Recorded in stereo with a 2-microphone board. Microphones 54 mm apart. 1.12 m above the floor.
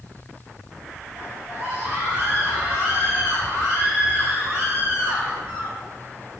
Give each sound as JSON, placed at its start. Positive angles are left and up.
{"t": 1.1, "sound": "a scream", "side_deg": -60, "distance_m": 5.0}